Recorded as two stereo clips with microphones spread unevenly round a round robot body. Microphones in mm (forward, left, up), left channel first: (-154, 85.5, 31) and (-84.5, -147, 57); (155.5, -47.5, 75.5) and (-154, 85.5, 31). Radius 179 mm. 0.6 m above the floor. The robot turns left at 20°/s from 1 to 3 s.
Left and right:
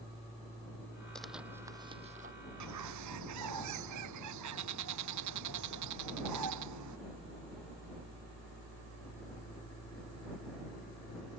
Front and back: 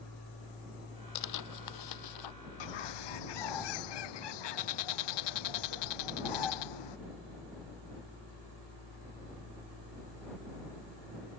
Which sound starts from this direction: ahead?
Tearing paper, at 1.1 s.